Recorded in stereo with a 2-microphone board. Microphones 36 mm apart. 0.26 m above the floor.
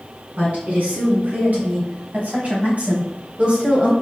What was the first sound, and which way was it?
A woman speaking, 50° right (ahead or behind).